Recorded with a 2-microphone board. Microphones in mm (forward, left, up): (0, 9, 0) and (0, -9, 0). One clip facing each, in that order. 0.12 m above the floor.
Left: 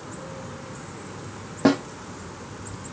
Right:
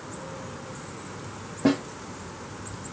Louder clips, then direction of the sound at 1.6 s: Left 3 dB; 45° left (ahead or behind).